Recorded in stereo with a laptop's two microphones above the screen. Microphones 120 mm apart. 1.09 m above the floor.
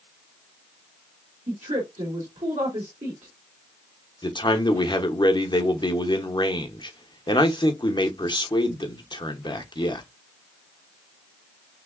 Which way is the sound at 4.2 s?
40° left (ahead or behind).